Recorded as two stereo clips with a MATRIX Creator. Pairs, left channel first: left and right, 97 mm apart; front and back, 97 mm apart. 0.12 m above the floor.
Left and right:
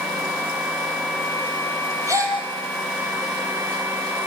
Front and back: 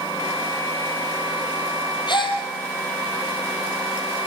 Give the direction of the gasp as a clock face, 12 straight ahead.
1 o'clock.